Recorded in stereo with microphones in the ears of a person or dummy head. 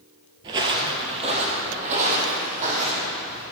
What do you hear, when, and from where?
0.4 s footsteps: 25° right (ahead or behind), 1.3 m; by 3.4 s 40° right (ahead or behind), 4 m